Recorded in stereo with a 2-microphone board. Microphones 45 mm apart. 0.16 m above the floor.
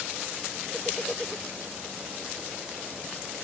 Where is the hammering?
No hammering in this recording.